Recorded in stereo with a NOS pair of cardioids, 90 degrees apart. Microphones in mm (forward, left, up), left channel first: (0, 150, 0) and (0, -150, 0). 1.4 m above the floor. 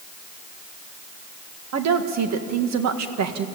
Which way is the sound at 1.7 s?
65° right.